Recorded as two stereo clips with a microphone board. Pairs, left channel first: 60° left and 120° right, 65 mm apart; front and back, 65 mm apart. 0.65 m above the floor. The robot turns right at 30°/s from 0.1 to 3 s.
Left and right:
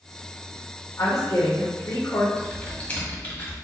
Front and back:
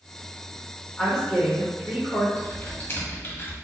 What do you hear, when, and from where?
1.0 s a woman speaking: 75° left, 1.8 m; by 2.3 s 115° left, 1.8 m
2.4 s typing on a keyboard: 5° right, 1.3 m; by 3.5 s 15° left, 1.3 m